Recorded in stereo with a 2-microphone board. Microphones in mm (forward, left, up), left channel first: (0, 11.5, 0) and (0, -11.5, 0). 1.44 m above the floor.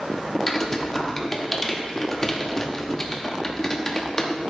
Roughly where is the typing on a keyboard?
Centre.